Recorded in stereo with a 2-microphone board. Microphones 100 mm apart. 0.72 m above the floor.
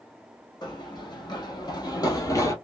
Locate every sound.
0.6 s running footsteps: 45° left (ahead or behind), 1.5 m; by 2.5 s 30° left (ahead or behind), 0.8 m